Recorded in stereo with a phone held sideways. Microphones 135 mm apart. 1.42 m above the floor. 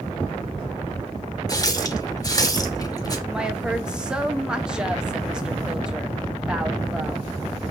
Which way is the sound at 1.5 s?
30° left (ahead or behind).